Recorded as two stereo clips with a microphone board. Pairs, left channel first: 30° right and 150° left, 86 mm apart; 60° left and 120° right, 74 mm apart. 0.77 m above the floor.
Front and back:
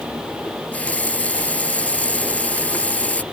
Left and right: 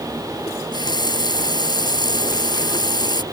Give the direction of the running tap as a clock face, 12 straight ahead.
11 o'clock.